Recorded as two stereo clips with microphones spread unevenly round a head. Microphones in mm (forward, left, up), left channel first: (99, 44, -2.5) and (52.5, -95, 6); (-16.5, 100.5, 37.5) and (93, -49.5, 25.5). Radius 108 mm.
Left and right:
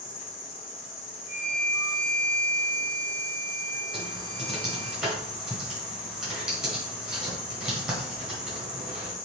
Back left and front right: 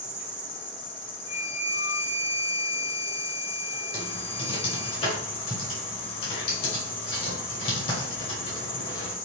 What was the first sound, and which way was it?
An insect, 100° left.